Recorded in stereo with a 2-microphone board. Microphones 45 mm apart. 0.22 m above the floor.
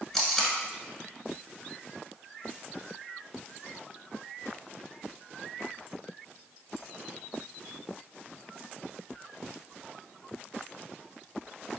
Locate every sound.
0.1 s tape being pulled: centre (ahead or behind), 0.7 m